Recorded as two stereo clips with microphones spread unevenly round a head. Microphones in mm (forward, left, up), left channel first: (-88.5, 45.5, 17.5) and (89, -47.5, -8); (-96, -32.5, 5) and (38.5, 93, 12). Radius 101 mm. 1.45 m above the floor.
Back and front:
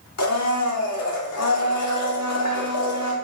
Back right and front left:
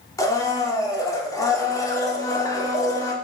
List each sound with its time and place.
0.2 s a blender: 150° left, 2.5 m